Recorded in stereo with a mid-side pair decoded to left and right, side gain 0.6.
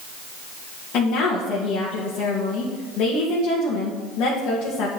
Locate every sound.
0.9 s a woman speaking: 60° left, 2 m